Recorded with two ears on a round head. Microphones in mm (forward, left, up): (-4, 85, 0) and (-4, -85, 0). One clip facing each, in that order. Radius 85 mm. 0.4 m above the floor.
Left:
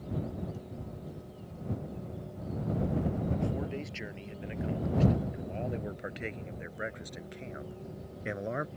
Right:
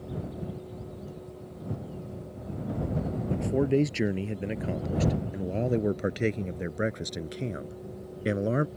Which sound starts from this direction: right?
A man speaking, at 3.3 s.